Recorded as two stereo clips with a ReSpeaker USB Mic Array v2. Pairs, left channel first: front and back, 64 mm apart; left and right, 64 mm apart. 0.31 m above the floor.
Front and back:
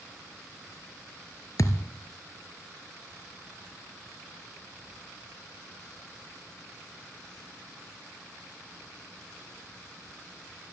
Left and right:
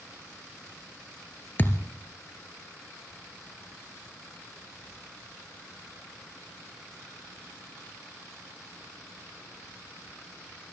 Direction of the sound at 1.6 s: 30° left.